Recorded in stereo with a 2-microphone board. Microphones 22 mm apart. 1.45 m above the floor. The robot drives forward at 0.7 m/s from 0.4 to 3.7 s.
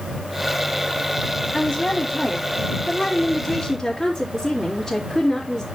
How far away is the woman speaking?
About 4.5 m.